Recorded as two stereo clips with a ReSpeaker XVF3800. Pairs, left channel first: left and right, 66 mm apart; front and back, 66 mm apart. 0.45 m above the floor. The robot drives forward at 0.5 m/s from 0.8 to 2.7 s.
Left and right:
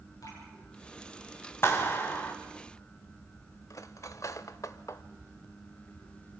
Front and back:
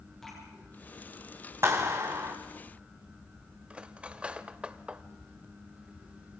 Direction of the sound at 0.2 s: 85° left.